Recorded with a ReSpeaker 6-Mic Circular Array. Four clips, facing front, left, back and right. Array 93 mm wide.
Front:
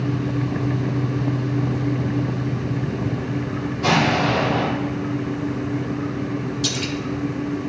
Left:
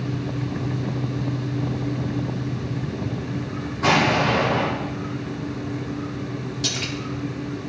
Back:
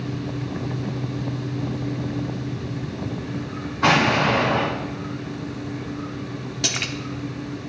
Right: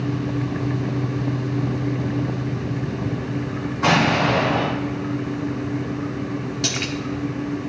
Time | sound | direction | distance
3.8 | an explosion | 160° right | 3 m
6.6 | a splash | 150° right | 0.7 m